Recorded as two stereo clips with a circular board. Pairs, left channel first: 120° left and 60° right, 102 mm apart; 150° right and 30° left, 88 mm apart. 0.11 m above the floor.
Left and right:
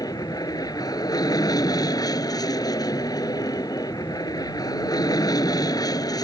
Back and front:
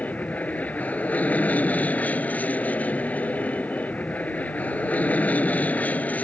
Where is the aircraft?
145° left.